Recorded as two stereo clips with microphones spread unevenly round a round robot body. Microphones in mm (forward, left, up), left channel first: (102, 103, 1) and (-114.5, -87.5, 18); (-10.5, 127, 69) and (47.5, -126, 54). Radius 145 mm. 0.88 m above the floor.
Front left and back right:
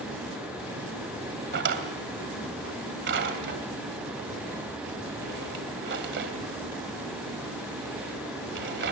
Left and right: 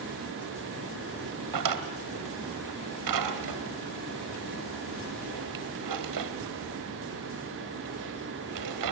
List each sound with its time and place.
1.5 s a drawer: 85° right, 2.5 m